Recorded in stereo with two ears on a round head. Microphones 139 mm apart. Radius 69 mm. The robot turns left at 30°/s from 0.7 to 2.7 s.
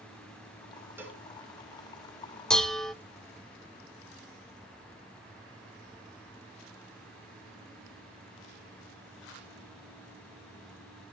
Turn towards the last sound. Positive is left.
turn(degrees=5)  # may be behind; listen again after turning